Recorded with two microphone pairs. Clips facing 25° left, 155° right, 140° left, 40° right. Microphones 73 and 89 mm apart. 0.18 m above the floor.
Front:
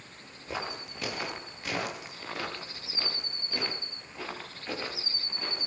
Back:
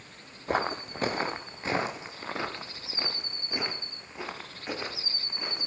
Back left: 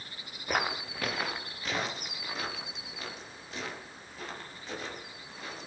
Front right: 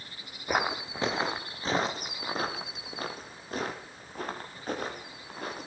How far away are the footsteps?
About 2.5 m.